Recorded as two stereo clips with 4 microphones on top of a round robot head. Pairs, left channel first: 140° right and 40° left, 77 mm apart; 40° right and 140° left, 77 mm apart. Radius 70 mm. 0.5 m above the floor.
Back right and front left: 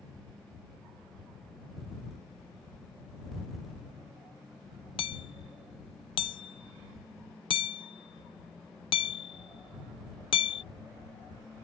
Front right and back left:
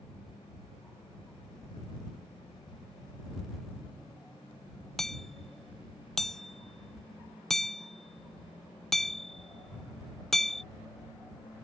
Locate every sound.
5.0 s hammering: 125° right